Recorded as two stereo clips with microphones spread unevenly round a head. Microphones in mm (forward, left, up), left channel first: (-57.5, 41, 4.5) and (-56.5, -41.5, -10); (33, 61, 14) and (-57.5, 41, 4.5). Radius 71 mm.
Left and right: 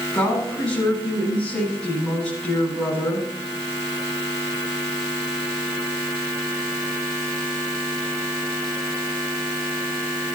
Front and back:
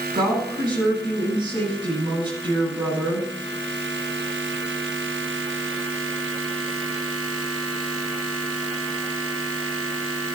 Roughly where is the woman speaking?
Behind.